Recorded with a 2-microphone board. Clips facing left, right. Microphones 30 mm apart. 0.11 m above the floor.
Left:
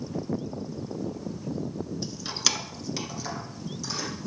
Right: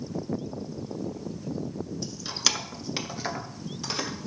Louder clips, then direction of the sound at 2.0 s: Right 1 dB; 20° left (ahead or behind).